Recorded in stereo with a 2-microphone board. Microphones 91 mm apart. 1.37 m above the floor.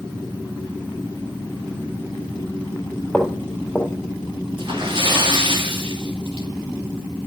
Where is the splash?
65° right (ahead or behind), 2.5 m.